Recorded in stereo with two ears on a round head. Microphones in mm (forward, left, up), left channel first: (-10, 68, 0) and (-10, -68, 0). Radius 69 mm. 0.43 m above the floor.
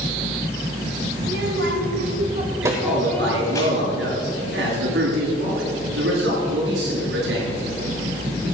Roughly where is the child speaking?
Right.